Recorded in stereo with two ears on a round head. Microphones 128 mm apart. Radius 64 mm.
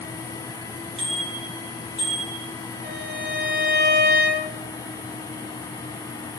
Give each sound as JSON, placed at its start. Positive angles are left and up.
{"t": 1.0, "sound": "a bicycle bell", "side_deg": -45, "distance_m": 5.5}
{"t": 2.8, "sound": "a violin", "side_deg": -85, "distance_m": 5.5}